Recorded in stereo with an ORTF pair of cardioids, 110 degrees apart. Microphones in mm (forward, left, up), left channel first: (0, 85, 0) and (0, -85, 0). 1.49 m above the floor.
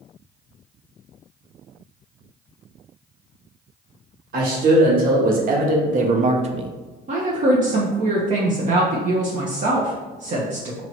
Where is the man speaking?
60° right, 1.8 m; by 6.7 s 40° right, 0.5 m.